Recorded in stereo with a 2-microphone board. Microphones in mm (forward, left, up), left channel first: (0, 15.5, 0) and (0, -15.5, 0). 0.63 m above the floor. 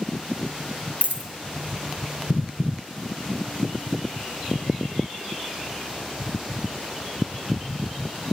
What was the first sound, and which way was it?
A dropped coin, 70° right (ahead or behind).